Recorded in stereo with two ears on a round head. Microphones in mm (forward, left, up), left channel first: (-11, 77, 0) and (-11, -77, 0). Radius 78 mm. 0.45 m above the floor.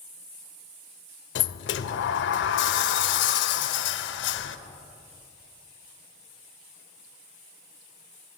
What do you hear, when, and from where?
1.4 s a sliding door: 75° left (ahead or behind), 0.5 m